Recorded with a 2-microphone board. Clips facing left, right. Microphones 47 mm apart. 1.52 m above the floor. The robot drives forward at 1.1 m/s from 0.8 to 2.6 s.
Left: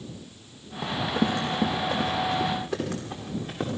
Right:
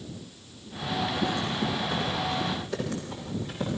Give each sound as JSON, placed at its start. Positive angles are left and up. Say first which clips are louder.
{"t": 0.8, "sound": "running footsteps", "louder": "left 2 dB", "side_deg": 55, "distance_m": 5.5}